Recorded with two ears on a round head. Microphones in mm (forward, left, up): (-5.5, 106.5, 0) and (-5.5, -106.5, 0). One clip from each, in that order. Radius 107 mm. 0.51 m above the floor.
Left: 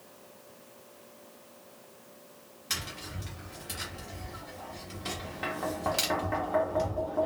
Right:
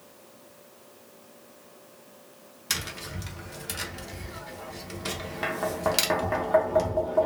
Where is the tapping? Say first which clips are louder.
Right 4 dB; 20° right (ahead or behind), 0.7 m.